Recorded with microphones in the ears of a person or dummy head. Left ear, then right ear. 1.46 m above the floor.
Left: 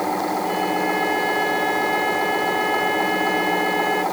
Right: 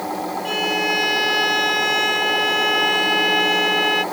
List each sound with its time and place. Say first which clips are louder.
0.5 s a violin: right 6 dB; 80° right